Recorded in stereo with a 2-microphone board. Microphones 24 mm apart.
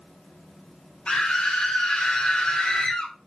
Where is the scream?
50° left (ahead or behind), 2 m.